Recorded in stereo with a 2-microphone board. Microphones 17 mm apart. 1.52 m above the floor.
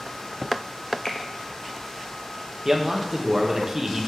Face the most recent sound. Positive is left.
turn(degrees=-20)  # may be behind; listen again after turning